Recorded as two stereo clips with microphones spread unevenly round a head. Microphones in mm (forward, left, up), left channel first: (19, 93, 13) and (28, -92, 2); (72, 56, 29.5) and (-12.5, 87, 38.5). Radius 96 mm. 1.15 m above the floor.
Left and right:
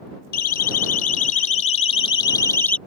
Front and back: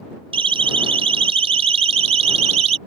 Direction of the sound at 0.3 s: 140° left.